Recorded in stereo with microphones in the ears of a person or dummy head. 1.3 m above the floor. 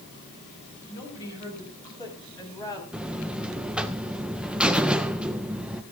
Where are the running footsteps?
No running footsteps in this recording.